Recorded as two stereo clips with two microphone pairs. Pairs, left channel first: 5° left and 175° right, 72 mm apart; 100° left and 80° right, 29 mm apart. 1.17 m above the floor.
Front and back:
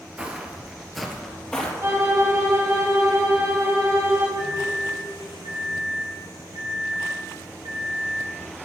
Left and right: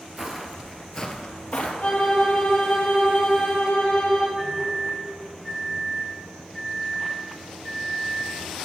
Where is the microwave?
150° right, 4.5 m.